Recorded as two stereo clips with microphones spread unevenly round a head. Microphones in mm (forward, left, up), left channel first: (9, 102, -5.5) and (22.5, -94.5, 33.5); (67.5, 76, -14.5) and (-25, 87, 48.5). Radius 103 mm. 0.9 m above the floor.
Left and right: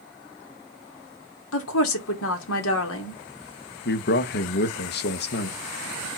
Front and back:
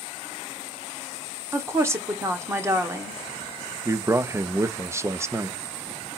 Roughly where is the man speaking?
Left.